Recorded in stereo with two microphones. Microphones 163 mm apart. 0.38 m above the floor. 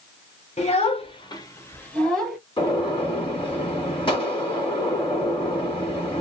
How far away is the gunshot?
About 1.9 m.